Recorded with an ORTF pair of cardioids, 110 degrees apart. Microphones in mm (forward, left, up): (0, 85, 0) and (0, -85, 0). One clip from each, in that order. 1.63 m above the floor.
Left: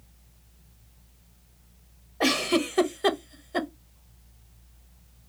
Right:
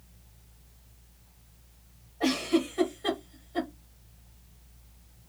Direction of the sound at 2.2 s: 65° left.